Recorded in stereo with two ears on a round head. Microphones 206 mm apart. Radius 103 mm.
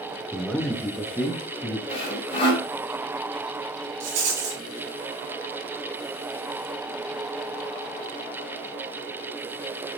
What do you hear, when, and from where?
0.3 s a man speaking: centre (ahead or behind), 0.7 m
1.9 s sawing: 25° left (ahead or behind), 2.5 m
4.0 s a rattle: 85° right, 4.5 m